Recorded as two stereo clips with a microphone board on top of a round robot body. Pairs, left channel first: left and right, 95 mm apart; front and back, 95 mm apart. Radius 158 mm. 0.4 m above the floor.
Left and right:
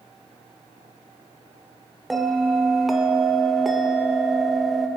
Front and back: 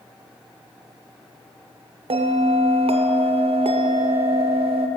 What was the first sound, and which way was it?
A bell, straight behind.